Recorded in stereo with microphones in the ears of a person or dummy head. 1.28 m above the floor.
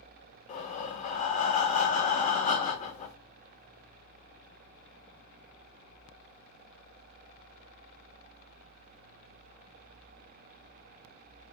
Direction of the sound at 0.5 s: 35° left (ahead or behind).